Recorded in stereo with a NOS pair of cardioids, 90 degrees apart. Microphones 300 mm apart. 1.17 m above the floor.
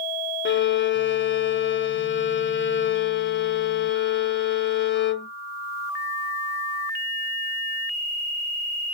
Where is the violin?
40° left, 0.7 m.